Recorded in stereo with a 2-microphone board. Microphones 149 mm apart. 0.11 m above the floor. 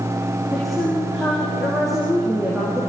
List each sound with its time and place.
0.5 s a woman speaking: centre (ahead or behind), 7 m